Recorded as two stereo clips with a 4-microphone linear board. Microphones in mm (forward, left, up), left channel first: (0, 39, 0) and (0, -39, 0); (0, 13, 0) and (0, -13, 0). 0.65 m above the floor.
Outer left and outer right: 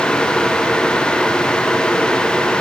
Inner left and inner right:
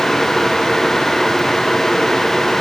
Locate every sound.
Only background noise.